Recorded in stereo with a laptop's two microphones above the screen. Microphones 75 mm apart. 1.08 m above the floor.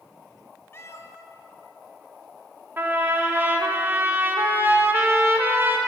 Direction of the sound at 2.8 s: 30° right (ahead or behind).